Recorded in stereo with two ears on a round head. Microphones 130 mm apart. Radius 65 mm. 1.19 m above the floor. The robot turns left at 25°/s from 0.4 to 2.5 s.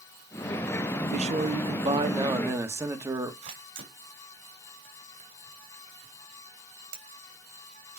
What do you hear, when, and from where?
1.1 s a man speaking: 125° right, 1.6 m; by 3.3 s 160° right, 1.6 m
3.4 s a camera shutter: 55° right (ahead or behind), 3.5 m